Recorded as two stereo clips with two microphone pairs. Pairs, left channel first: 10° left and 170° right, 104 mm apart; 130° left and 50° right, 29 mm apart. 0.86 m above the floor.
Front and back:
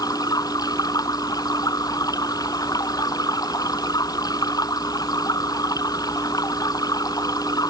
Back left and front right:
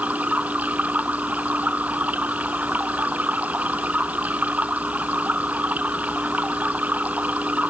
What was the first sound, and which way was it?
Running water, 35° right.